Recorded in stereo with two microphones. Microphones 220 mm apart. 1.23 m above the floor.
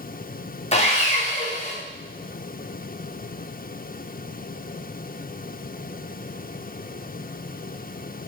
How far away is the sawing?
About 0.7 m.